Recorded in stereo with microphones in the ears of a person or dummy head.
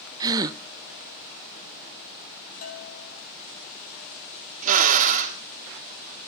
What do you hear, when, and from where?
0.2 s a gasp: 25° right (ahead or behind), 0.6 m
2.6 s a bell: 55° left (ahead or behind), 2.5 m
4.6 s a drill: 35° right (ahead or behind), 1.1 m